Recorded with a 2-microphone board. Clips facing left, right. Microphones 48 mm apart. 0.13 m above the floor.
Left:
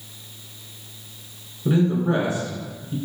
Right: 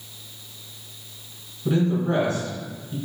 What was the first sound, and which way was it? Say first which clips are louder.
A man speaking: left 2 dB; 15° left (ahead or behind).